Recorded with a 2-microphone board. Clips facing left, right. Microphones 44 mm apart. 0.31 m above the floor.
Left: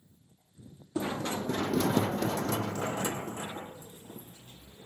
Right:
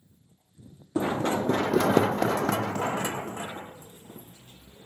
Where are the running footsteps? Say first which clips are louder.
Right 7 dB; 30° right (ahead or behind), 0.7 m; by 4.9 s 25° right (ahead or behind), 1.6 m.